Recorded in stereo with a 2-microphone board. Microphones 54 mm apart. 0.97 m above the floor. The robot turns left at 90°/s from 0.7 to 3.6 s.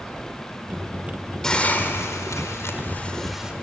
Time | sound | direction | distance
1.4 | a hiss | 170° left | 2 m